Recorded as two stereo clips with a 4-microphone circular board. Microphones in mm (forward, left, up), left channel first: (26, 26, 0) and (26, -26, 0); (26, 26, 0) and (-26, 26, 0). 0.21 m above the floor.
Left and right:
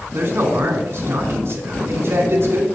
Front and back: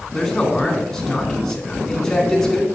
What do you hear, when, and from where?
0.1 s a man speaking: 80° right, 1.8 m